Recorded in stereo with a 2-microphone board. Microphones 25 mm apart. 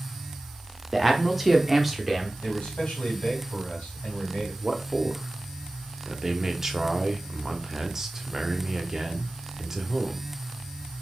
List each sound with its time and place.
0.9 s a man speaking: 5° right (ahead or behind), 0.7 m
2.4 s a man speaking: 55° left (ahead or behind), 2.5 m
4.6 s a man speaking: 20° right (ahead or behind), 0.6 m